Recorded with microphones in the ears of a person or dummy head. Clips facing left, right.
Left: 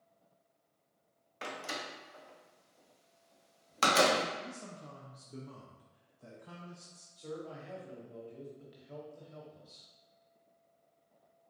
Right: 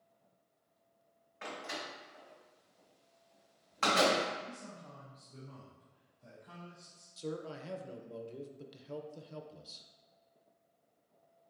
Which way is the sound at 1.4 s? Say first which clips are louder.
Left 1 dB; 55° left (ahead or behind).